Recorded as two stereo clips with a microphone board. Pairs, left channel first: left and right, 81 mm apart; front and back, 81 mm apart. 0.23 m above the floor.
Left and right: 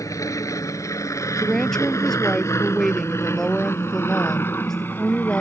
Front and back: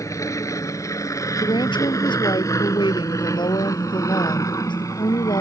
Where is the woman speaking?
5° left.